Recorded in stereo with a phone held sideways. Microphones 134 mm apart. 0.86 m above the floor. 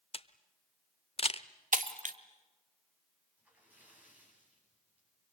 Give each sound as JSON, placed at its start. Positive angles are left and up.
{"t": 0.1, "sound": "a camera shutter", "side_deg": 45, "distance_m": 0.8}
{"t": 1.7, "sound": "breaking glass", "side_deg": -75, "distance_m": 1.4}
{"t": 3.4, "sound": "a splash", "side_deg": -10, "distance_m": 8.0}